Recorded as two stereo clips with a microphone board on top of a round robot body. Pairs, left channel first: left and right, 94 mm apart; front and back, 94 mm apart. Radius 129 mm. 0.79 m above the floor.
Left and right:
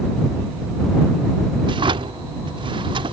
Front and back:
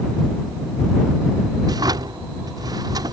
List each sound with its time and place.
1.6 s a drawer: 130° right